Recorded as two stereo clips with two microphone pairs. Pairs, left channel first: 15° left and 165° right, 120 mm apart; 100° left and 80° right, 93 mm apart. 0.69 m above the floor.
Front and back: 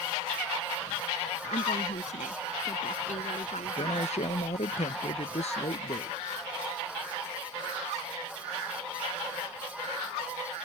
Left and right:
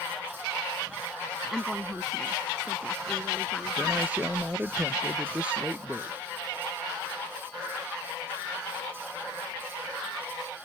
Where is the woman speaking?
10° left; by 4.1 s 15° left.